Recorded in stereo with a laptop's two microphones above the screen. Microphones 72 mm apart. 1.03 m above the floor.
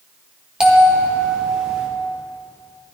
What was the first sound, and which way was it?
A bell, 10° right (ahead or behind).